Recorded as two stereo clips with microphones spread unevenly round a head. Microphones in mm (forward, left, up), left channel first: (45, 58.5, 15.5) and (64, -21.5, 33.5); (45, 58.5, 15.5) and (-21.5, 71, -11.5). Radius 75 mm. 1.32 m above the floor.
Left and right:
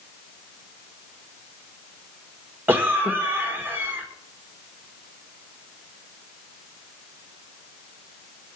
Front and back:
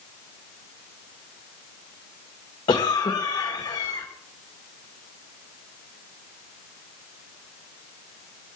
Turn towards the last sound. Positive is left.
turn(degrees=-10)